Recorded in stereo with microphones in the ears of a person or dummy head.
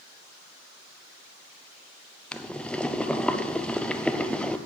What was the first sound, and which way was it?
Boiling, 5° left (ahead or behind).